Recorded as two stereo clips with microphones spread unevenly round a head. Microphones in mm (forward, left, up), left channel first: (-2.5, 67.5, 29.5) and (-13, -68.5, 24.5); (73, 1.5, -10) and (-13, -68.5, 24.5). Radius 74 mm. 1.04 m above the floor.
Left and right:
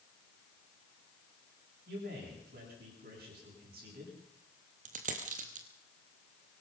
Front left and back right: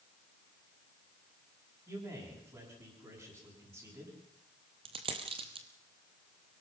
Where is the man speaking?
80° right, 9.5 m.